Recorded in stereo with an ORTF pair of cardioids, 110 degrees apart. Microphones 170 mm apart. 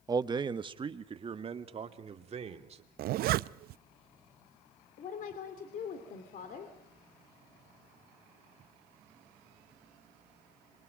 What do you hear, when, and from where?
0.1 s a man speaking: 20° right, 0.9 m; by 2.8 s 40° right, 2.5 m
3.0 s a zipper: 65° right, 0.5 m
5.0 s a woman speaking: 55° left, 3 m